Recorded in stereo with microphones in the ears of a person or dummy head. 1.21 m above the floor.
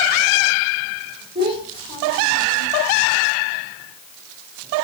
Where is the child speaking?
30° right (ahead or behind), 3 m.